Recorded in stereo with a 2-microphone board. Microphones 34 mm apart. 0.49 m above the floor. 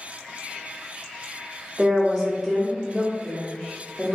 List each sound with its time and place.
1.8 s a woman speaking: 5° right (ahead or behind), 0.7 m